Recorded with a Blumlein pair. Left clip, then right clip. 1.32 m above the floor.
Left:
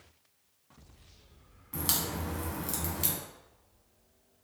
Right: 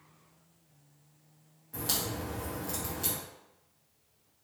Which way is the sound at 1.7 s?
65° left.